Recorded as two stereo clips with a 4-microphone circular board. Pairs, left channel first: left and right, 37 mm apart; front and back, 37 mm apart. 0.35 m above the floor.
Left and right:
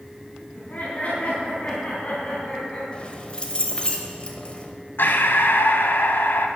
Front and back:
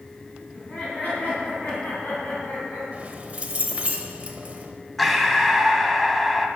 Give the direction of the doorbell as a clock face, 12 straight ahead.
I don't hear a doorbell.